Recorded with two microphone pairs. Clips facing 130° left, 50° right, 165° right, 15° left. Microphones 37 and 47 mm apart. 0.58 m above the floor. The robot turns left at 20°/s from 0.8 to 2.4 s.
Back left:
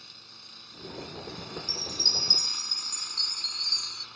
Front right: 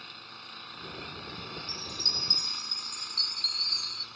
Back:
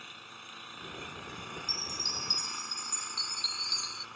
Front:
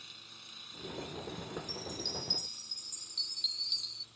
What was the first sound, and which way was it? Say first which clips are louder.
An engine running: front right 5 dB, back 6 dB; 110° right.